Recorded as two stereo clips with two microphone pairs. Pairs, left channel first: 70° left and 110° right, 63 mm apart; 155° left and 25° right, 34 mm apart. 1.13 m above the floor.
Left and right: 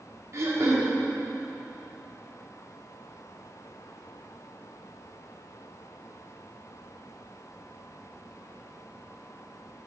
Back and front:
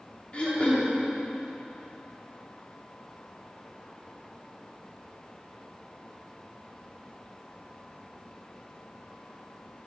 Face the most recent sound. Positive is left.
turn(degrees=-150)